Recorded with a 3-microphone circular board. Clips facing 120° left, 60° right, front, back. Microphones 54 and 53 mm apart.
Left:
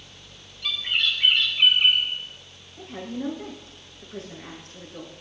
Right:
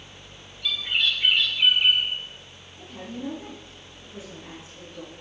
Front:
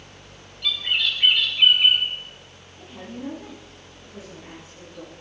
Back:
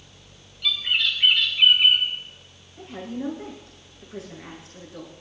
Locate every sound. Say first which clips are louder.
0.6 s a bird: even, even; 90° left, 3.5 m
2.8 s a woman speaking: left 4 dB, back 4 dB; 155° left, 9 m